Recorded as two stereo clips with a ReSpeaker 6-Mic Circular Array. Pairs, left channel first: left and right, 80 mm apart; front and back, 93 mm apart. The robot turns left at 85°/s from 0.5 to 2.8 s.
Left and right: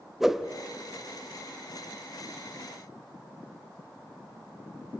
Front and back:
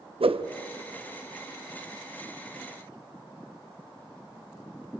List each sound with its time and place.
0.2 s a whoosh: 175° right, 0.8 m